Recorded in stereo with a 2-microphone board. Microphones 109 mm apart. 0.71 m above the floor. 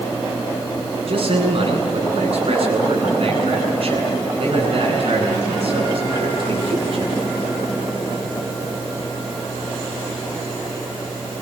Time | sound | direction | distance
1.1 | a man speaking | 60° right (ahead or behind) | 8.5 m